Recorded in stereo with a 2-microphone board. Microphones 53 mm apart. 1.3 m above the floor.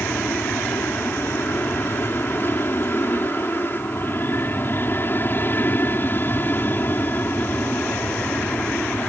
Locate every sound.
0.0 s an aircraft: 45° left (ahead or behind); by 9.1 s 35° left (ahead or behind)